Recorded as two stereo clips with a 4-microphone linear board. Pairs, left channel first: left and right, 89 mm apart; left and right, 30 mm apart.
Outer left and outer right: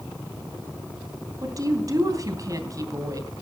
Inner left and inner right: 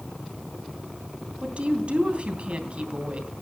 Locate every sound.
1.4 s a woman speaking: 40° right (ahead or behind), 2.5 m